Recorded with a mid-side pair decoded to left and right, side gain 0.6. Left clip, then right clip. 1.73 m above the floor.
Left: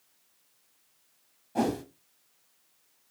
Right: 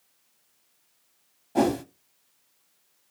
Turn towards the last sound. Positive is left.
turn(degrees=-30)